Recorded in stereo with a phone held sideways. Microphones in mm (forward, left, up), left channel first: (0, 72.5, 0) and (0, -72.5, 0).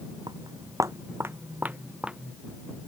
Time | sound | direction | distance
0.3 | footsteps | 30° right (ahead or behind) | ?